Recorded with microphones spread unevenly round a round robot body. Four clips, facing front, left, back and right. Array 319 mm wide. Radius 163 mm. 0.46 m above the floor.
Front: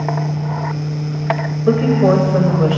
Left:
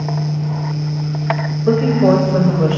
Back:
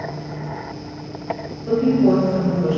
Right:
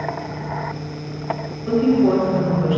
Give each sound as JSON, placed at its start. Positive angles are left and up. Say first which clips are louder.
{"t": 1.7, "sound": "a woman speaking", "louder": "left 3 dB, front 2 dB", "azimuth_deg": 35, "distance_m": 2.0}